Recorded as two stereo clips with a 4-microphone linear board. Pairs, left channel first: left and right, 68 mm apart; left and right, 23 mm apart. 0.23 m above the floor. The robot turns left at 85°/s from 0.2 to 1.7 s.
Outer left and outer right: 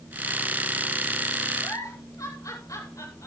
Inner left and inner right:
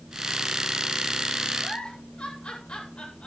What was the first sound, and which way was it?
A giggle, 55° left (ahead or behind).